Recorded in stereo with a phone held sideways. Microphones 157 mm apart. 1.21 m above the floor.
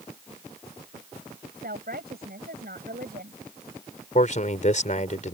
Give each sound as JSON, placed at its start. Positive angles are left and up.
{"t": 1.5, "sound": "a woman speaking", "side_deg": -80}
{"t": 4.2, "sound": "a man speaking", "side_deg": 50}